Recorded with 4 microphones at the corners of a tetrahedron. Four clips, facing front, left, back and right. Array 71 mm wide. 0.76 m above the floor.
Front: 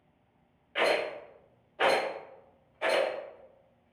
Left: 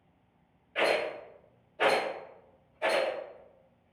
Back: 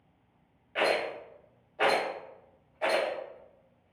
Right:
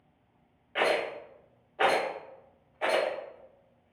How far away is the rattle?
About 1.4 m.